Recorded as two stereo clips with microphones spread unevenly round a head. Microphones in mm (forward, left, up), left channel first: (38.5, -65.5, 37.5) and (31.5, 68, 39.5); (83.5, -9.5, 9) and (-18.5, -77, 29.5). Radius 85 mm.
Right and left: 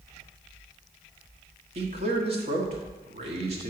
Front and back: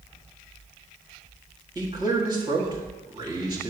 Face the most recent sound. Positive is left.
turn(degrees=140)